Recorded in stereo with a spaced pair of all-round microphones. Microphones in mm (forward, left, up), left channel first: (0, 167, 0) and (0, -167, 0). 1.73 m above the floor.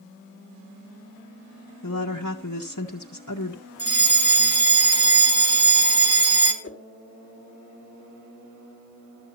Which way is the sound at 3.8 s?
45° right (ahead or behind).